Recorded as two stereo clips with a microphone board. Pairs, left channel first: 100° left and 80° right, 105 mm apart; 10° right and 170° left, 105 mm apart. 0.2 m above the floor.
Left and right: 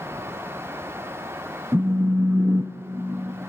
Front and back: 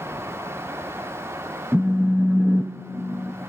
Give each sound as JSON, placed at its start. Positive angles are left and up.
{"t": 1.7, "sound": "a phone buzzing", "azimuth_deg": -110, "distance_m": 0.6}